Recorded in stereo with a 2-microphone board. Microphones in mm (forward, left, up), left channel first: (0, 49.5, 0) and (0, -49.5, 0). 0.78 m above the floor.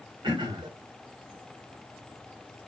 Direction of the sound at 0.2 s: 55° right (ahead or behind).